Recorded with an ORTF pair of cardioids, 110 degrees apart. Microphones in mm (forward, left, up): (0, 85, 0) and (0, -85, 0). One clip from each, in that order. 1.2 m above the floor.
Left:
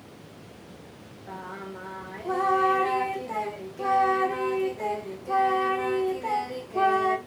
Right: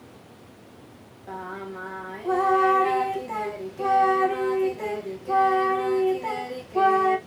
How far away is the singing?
About 0.7 m.